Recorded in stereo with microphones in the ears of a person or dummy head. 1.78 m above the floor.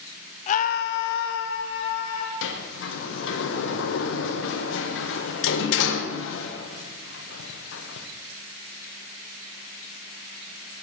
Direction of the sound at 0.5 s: 40° left (ahead or behind).